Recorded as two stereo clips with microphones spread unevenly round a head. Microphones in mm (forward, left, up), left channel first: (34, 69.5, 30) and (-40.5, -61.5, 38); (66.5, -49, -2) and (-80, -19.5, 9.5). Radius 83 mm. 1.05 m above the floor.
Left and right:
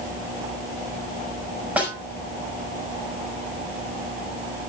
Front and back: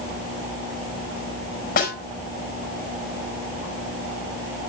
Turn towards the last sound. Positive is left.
turn(degrees=-40)